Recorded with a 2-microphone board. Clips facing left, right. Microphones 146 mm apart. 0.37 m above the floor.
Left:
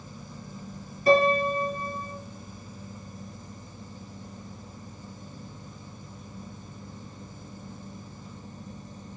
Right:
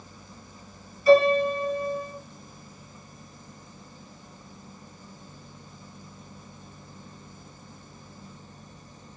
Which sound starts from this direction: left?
A piano, at 1.1 s.